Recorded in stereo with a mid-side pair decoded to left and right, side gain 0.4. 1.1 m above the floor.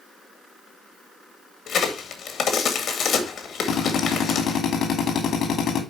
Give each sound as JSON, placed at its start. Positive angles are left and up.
{"t": 1.7, "sound": "a crack", "azimuth_deg": 70, "distance_m": 2.0}
{"t": 3.7, "sound": "a drill", "azimuth_deg": 70, "distance_m": 2.5}